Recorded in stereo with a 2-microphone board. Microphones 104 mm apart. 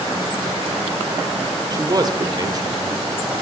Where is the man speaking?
35° right (ahead or behind), 1.6 m.